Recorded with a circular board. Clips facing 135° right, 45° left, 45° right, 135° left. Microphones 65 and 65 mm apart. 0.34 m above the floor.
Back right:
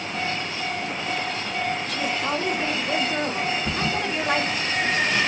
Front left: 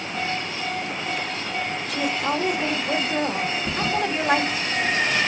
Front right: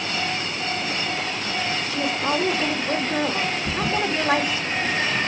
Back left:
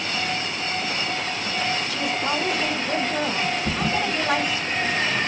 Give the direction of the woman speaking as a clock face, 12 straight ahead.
1 o'clock.